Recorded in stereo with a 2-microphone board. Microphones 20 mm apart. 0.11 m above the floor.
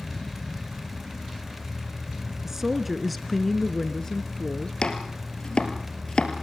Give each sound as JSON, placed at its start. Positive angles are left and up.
{"t": 2.4, "sound": "a woman speaking", "side_deg": -20, "distance_m": 1.1}
{"t": 4.8, "sound": "chopping", "side_deg": 50, "distance_m": 2.5}